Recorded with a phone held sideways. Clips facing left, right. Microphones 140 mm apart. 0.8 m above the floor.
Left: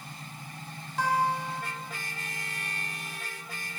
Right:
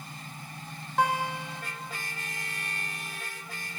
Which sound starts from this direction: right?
A guitar, at 1.0 s.